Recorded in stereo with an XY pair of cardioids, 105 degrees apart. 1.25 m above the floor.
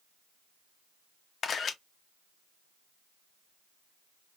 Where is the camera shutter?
50° left, 0.6 m.